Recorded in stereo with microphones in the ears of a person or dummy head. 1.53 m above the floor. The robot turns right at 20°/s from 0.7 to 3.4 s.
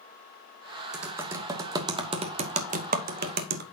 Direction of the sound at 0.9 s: 5° right (ahead or behind).